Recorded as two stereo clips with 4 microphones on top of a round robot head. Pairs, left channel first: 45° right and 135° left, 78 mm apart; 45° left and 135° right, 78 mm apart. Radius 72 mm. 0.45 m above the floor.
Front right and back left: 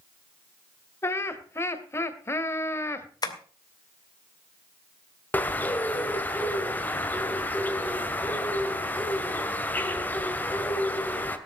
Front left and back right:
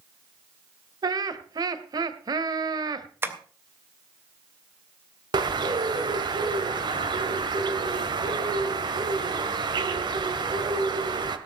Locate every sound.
1.0 s laughter: 100° right, 1.8 m
3.2 s tapping: 75° right, 2.5 m
5.3 s a bird: 115° right, 2 m